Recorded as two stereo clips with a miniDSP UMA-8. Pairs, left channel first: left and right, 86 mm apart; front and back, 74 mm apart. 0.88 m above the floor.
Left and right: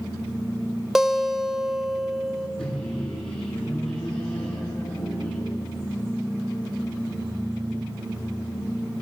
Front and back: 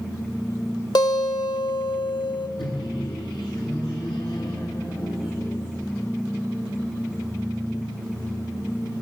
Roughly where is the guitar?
Ahead.